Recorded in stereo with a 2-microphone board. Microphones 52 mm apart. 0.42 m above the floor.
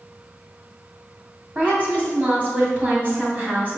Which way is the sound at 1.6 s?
30° right (ahead or behind).